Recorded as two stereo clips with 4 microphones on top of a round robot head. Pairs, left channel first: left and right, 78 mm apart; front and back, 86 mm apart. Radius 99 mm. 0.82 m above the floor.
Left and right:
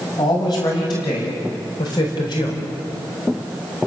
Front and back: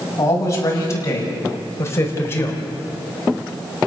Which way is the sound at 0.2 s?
50° left.